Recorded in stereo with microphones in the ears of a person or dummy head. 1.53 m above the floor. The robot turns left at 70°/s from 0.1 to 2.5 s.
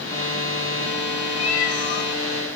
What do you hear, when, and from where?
1.4 s a cat meowing: 135° left, 2 m; by 2.1 s 85° left, 2 m